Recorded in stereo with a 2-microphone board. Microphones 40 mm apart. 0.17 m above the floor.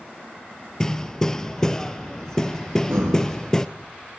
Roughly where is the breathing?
Right.